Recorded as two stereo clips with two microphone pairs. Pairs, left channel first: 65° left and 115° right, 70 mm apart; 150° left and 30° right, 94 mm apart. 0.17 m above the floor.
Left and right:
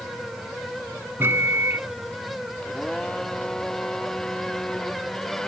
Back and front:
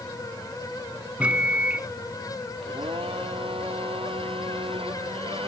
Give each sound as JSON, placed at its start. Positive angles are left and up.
{"t": 1.2, "sound": "a microwave", "azimuth_deg": -95}
{"t": 2.6, "sound": "a blender", "azimuth_deg": -15}